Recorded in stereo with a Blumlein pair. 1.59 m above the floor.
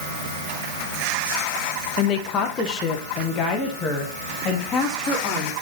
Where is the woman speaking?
35° left, 0.9 m; by 5.5 s 20° left, 3 m.